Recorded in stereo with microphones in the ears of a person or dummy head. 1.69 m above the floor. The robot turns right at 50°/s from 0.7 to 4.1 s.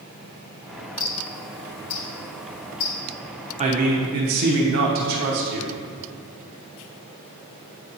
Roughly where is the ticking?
Centre.